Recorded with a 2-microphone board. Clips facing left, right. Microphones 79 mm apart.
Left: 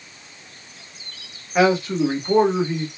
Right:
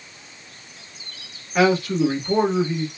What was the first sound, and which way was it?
A man speaking, 15° left (ahead or behind).